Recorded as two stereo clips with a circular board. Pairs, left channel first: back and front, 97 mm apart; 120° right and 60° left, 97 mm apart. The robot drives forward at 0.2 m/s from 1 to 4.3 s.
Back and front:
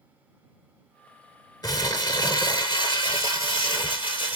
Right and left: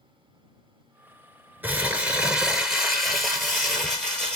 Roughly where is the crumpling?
Behind left.